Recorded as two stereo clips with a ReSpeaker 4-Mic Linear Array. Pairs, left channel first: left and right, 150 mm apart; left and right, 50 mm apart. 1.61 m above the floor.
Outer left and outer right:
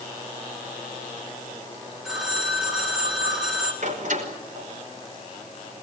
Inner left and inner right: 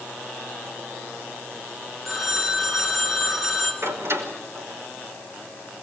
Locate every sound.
2.0 s a phone ringing: centre (ahead or behind), 4.5 m
3.8 s a door slam: 60° right (ahead or behind), 5.5 m